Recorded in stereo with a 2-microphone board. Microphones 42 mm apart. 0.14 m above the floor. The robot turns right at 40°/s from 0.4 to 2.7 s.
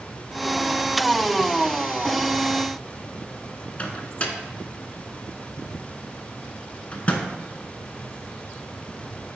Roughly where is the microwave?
Left.